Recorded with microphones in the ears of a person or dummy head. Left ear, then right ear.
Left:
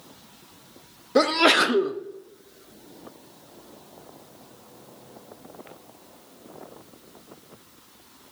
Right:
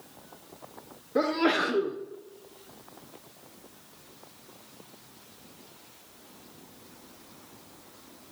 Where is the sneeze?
75° left (ahead or behind), 0.7 m.